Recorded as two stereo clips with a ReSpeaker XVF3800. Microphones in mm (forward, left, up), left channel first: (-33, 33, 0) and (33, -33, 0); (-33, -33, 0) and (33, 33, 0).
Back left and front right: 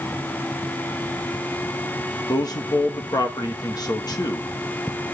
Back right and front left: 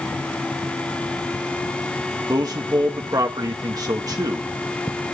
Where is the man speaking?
90° left, 1.4 m.